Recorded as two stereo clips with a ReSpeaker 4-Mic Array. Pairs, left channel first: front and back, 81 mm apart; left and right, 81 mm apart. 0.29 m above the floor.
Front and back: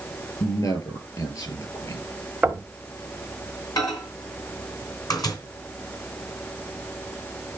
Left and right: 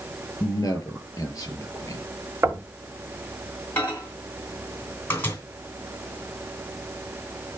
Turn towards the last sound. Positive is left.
turn(degrees=30)